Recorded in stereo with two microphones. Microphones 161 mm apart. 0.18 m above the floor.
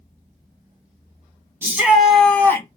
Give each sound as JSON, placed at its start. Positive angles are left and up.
{"t": 1.6, "sound": "a shout", "side_deg": -15, "distance_m": 1.1}